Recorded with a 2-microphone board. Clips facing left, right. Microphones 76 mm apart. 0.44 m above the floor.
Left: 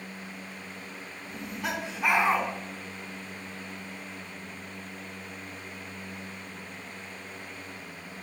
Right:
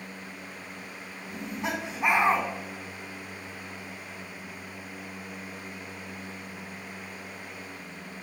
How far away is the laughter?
About 4 m.